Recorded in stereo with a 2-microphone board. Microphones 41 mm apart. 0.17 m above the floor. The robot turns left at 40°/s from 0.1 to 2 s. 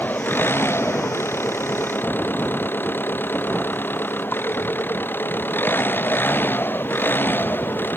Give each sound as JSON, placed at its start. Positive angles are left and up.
{"t": 0.0, "sound": "an engine running", "azimuth_deg": 130}